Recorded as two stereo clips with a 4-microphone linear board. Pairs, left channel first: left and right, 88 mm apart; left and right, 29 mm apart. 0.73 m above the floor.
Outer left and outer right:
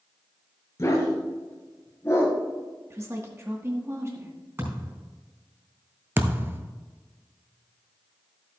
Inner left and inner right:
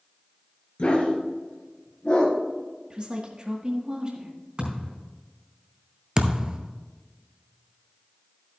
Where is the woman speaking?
30° right (ahead or behind), 1.4 m.